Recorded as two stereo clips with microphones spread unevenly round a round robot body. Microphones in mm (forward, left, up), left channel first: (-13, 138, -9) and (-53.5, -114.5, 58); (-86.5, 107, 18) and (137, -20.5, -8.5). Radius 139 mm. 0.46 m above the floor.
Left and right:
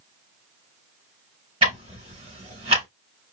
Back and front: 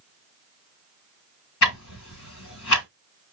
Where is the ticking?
170° right, 4 m.